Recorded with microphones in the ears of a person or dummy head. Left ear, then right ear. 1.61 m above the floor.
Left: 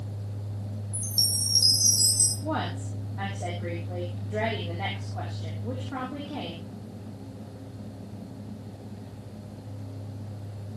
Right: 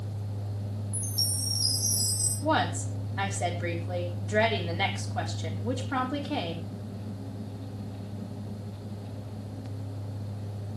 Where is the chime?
25° left (ahead or behind), 4.5 m.